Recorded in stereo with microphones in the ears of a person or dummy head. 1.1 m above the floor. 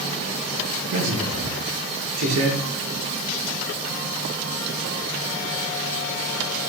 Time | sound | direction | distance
0.9 | a man speaking | 80° right | 0.9 m